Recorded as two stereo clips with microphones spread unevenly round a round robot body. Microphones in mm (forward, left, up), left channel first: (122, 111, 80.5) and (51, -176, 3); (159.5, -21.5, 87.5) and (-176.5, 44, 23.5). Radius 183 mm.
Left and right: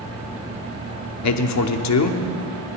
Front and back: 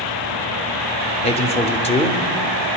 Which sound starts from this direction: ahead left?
A man speaking, at 1.2 s.